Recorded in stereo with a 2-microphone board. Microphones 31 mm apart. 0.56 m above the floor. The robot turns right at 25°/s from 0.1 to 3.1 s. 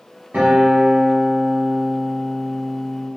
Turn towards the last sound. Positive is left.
turn(degrees=-5)